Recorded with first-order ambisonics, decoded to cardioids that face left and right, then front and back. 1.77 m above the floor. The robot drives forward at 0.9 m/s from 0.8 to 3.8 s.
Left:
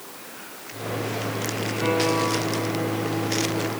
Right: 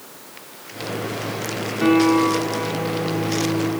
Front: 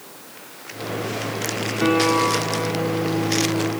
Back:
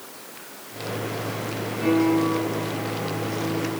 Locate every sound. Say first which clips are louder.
1.8 s a guitar: right 6 dB, front 3 dB; 40° right, 2.5 m; by 3.8 s 95° right, 1.6 m